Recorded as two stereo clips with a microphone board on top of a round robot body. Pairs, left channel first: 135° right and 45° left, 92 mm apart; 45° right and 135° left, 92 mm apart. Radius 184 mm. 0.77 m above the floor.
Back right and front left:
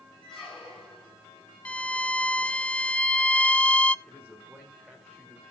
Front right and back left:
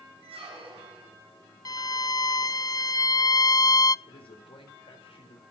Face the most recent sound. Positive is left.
turn(degrees=-40)